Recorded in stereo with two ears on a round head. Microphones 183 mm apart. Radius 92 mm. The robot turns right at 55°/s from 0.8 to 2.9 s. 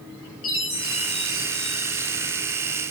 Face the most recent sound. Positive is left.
turn(degrees=-145)